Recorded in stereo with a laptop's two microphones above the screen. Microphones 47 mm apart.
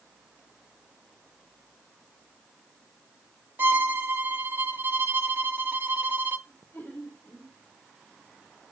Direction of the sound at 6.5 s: 55° left (ahead or behind).